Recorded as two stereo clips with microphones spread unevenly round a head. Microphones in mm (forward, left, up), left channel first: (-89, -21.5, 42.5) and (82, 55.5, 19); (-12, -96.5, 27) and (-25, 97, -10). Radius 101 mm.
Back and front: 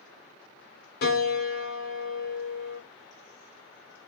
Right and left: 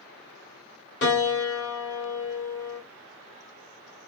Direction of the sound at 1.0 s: 115° right.